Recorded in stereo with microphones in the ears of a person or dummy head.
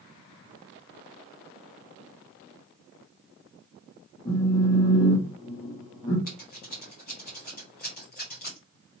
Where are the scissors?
40° left (ahead or behind), 1.0 m.